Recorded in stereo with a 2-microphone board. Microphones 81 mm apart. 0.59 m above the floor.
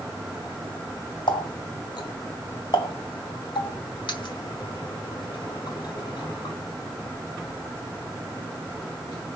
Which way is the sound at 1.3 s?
70° left (ahead or behind).